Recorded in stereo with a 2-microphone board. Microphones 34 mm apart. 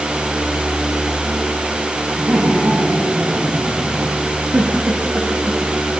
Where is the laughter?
80° right, 8.5 m; by 4.2 s 85° right, 10 m.